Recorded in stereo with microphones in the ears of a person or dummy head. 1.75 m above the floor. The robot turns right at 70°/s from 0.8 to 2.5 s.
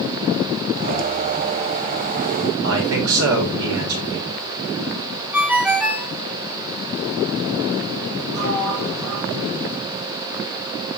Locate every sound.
2.6 s a man speaking: 85° right, 6.5 m
5.3 s a ringtone: 5° right (ahead or behind), 1.4 m
8.3 s a sliding door: 80° right, 8.5 m